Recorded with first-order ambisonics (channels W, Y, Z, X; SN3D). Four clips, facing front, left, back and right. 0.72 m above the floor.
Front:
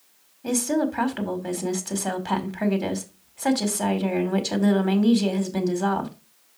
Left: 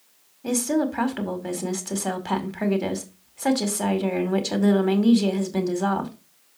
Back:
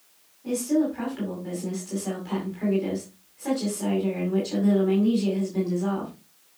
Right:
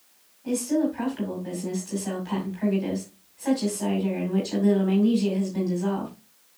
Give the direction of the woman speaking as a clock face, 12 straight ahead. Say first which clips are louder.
Left 1 dB, even; 10 o'clock.